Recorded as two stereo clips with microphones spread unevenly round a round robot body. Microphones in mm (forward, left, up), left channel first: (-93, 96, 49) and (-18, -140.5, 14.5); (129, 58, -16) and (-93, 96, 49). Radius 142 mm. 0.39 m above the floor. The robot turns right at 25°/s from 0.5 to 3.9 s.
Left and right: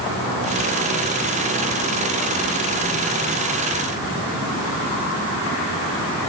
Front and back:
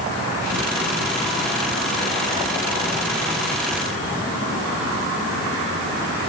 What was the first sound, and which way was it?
Only background noise.